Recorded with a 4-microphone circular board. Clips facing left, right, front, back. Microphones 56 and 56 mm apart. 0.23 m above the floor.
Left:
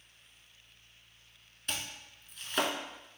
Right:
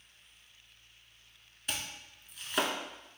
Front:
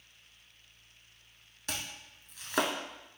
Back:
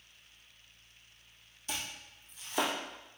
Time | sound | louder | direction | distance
1.7 | chopping | even, even | 5° right | 0.6 m